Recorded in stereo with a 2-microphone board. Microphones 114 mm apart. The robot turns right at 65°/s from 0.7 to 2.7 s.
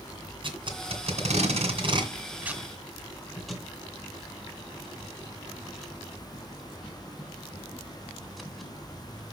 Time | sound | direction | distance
0.4 | tape being pulled | 50° right (ahead or behind) | 1.8 m